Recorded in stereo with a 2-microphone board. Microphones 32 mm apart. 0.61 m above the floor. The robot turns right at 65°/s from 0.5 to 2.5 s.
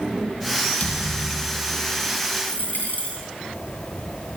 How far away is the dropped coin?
About 3 m.